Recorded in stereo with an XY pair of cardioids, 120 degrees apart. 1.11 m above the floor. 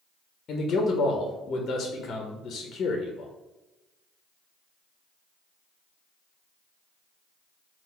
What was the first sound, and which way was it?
A man speaking, 50° left.